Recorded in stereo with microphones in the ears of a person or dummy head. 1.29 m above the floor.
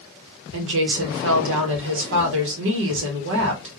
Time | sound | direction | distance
0.5 | a woman speaking | 75° right (ahead or behind) | 1.5 m